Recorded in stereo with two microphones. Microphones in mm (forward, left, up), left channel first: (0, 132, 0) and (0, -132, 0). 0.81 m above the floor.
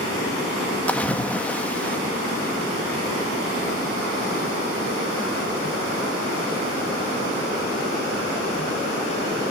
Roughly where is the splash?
Centre.